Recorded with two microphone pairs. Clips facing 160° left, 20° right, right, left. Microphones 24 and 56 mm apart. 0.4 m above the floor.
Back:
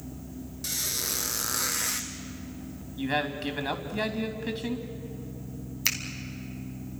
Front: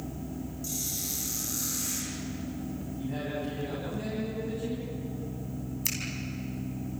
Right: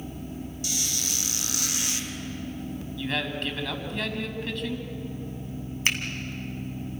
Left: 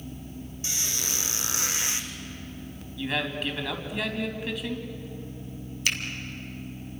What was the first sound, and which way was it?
A squeak, 155° left.